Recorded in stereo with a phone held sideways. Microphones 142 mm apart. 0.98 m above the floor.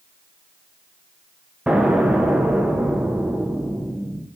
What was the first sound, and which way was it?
An explosion, 5° right (ahead or behind).